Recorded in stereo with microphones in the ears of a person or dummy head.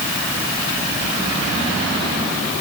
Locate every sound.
Only background noise.